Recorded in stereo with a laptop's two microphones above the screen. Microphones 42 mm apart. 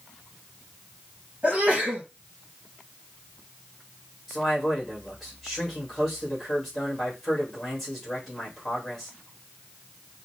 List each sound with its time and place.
1.4 s a sneeze: 25° right (ahead or behind), 1.2 m
4.3 s a man speaking: 10° left (ahead or behind), 1.7 m